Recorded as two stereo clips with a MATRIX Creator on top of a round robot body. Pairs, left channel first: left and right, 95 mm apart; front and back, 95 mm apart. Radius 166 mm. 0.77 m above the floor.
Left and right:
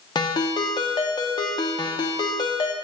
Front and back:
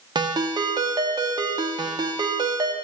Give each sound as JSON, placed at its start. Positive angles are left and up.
{"t": 0.1, "sound": "a ringtone", "azimuth_deg": 135, "distance_m": 0.8}